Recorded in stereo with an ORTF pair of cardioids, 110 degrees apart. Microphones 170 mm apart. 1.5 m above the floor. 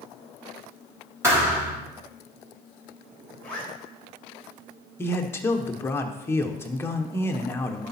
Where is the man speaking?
15° left, 1.1 m.